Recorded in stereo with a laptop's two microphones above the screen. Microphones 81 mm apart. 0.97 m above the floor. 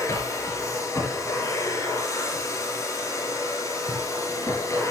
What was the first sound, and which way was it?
A machine running, 40° left (ahead or behind).